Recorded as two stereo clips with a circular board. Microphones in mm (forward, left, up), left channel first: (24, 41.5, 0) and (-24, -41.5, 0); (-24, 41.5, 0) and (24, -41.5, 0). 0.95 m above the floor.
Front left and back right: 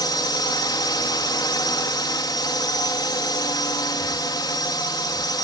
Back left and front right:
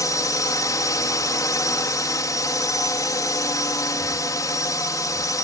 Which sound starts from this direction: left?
A drone, at 0.0 s.